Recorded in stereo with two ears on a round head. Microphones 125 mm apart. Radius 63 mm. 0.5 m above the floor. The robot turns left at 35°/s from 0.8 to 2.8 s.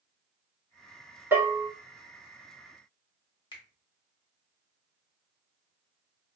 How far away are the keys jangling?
No keys jangling in this recording.